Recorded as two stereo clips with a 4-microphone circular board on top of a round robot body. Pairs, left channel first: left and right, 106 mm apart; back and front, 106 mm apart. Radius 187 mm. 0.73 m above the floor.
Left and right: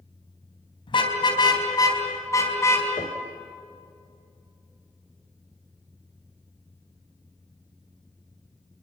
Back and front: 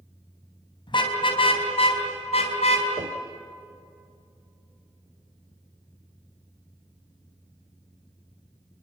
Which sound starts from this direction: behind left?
A car horn, at 0.9 s.